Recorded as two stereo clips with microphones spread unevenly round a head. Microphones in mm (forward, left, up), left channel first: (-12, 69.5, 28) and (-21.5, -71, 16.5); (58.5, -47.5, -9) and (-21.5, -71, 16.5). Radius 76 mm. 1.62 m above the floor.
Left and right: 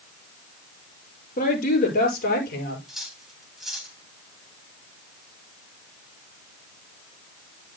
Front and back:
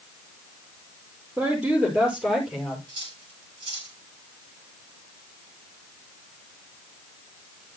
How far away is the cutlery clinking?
About 4 m.